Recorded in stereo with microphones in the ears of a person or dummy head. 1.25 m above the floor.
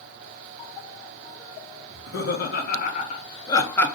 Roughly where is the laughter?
Left.